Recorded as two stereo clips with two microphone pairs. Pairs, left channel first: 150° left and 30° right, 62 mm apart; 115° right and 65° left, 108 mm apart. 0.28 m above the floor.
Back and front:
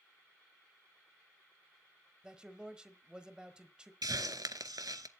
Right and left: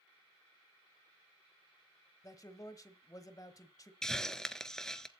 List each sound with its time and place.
2.2 s a man speaking: 95° right, 1.2 m
4.0 s a hiss: 35° right, 0.7 m